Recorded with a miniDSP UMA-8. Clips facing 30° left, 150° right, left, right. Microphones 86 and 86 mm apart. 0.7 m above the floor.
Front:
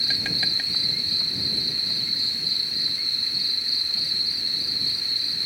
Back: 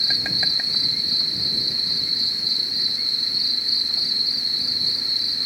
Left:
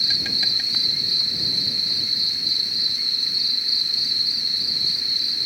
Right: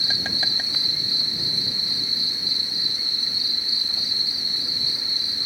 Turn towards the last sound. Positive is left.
turn(degrees=-95)